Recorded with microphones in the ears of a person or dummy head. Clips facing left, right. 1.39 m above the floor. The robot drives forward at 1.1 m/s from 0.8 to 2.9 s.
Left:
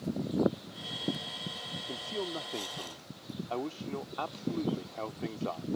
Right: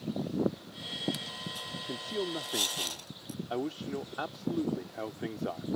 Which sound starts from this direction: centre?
A man speaking, at 1.9 s.